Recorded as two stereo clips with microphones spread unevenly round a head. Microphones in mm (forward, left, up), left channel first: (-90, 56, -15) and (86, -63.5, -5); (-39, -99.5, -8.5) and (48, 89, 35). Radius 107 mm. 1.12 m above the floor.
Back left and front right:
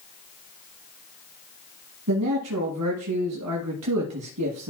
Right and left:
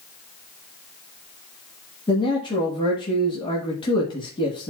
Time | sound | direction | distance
2.1 | a man speaking | 45° right | 1.4 m